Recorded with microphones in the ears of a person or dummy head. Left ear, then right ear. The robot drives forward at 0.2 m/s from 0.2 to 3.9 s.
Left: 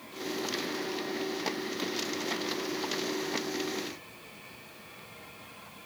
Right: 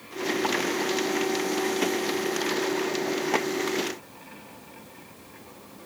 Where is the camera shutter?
I don't hear a camera shutter.